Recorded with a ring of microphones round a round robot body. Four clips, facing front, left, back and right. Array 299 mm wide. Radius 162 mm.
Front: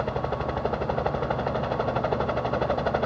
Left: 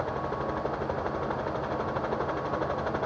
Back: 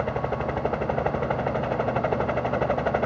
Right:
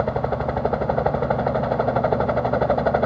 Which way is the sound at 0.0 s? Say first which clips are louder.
Right 8 dB, back 1 dB; 100° right.